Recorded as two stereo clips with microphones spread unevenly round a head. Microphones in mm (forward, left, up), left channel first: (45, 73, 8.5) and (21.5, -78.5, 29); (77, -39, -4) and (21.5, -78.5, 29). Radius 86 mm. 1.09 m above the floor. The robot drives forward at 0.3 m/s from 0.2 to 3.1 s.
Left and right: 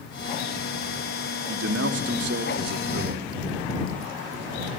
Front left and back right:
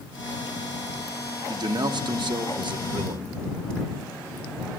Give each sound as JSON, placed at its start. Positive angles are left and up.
{"t": 1.5, "sound": "a man speaking", "azimuth_deg": -115, "distance_m": 0.9}